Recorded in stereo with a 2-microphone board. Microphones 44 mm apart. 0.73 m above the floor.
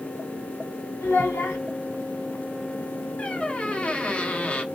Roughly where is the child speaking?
Left.